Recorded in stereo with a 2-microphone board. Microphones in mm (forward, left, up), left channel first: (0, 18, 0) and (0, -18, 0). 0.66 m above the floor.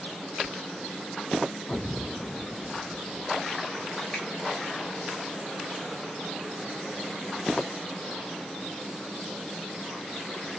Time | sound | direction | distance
4.1 | a finger snap | 25° left (ahead or behind) | 1.3 m